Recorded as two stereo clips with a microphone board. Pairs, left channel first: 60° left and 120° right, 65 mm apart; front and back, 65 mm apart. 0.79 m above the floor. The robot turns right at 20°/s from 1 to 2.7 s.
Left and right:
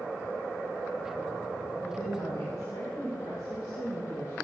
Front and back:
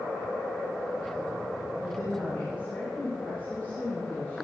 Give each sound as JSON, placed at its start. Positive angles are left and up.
{"t": 1.8, "sound": "a woman speaking", "azimuth_deg": 45, "distance_m": 4.0}